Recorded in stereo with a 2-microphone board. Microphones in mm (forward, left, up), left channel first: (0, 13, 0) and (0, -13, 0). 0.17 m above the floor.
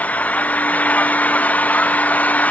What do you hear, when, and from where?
0.0 s an engine running: 80° left